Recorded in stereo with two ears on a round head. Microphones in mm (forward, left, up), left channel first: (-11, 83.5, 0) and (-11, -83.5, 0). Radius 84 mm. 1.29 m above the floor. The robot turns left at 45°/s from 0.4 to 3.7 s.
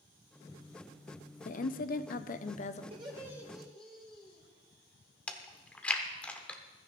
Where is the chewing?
10° left (ahead or behind), 1.1 m.